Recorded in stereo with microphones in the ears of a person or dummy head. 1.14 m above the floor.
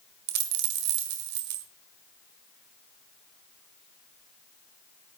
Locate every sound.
0.3 s a dropped coin: 55° right (ahead or behind), 1.6 m